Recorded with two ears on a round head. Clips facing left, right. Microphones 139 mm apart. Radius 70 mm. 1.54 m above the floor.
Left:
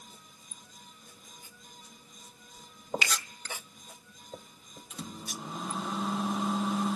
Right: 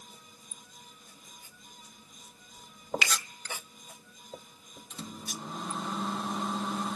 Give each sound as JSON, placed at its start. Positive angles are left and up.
{"t": 3.0, "sound": "a finger snap", "side_deg": -55, "distance_m": 2.0}
{"t": 4.9, "sound": "a microwave", "side_deg": 0, "distance_m": 1.0}